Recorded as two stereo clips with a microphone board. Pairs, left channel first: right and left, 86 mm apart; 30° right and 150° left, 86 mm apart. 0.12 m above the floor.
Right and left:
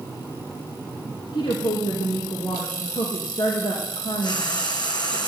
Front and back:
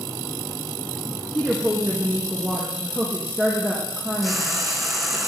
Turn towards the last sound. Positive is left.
turn(degrees=-120)